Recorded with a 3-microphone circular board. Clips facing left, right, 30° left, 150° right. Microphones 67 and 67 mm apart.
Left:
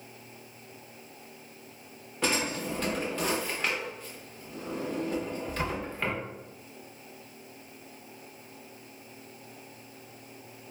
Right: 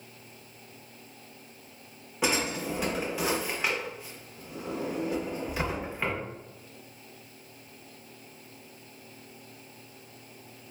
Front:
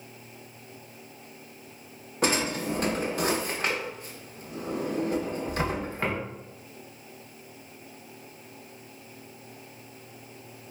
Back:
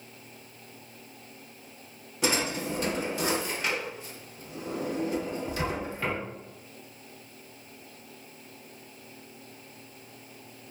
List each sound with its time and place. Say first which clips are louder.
2.2 s a drawer: right 1 dB, front 2 dB; 10° right, 0.6 m